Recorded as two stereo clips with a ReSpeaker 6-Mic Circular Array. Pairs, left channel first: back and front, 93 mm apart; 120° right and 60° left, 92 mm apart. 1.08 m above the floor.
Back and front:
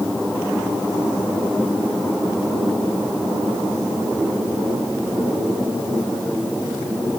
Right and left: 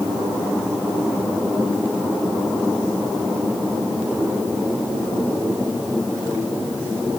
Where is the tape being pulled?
I don't hear tape being pulled.